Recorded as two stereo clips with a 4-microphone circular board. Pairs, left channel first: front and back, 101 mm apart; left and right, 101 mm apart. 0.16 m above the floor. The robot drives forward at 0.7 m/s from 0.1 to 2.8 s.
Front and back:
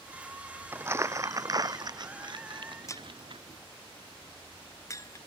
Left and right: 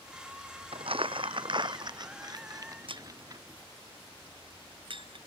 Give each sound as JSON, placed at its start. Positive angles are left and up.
{"t": 0.7, "sound": "crumpling", "azimuth_deg": -110}
{"t": 2.9, "sound": "breaking glass", "azimuth_deg": -60}